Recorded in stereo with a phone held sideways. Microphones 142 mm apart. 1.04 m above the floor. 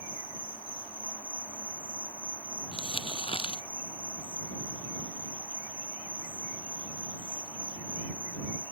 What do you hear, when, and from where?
0.0 s an insect: 10° left (ahead or behind)
2.7 s crumpling: 40° left (ahead or behind)